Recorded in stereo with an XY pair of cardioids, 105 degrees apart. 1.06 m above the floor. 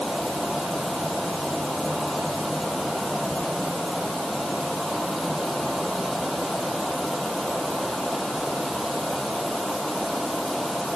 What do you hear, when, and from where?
0.0 s a fan: straight ahead